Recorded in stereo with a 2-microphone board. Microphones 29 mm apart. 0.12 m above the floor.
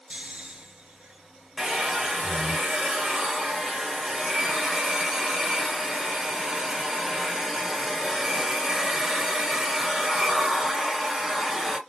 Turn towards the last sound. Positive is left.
turn(degrees=-25)  # may be behind; listen again after turning